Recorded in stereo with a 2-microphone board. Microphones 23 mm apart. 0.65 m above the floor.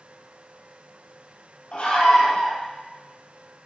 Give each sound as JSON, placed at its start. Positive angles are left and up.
{"t": 1.7, "sound": "a scream", "side_deg": 70, "distance_m": 4.5}